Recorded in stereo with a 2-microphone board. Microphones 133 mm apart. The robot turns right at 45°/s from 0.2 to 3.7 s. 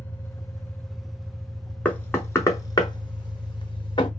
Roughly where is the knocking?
Centre.